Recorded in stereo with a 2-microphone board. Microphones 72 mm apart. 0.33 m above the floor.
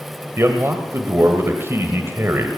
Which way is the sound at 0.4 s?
35° right (ahead or behind).